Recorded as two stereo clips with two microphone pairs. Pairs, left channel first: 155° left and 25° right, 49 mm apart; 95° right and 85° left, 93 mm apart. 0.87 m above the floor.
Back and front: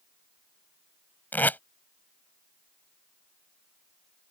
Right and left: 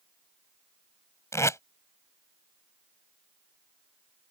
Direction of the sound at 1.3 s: 155° right.